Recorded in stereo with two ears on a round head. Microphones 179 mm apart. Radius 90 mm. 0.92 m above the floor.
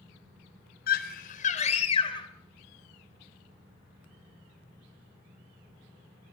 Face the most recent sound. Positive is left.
turn(degrees=20)  # may be behind; listen again after turning